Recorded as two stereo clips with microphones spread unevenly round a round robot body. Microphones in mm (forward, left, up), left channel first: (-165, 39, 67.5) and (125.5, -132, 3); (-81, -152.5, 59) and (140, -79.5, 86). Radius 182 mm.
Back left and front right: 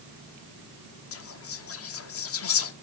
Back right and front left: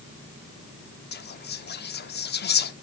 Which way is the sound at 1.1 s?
160° right.